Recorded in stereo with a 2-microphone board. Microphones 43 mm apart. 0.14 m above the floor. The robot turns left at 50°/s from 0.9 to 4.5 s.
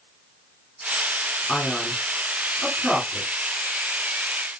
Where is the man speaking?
40° left (ahead or behind), 2 m; by 3.3 s 15° right (ahead or behind), 2 m.